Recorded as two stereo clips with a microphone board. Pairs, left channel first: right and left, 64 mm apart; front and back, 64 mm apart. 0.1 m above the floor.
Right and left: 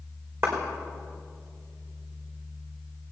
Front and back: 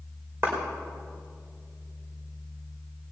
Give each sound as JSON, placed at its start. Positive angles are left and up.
{"t": 0.4, "sound": "a clap", "azimuth_deg": 130, "distance_m": 5.0}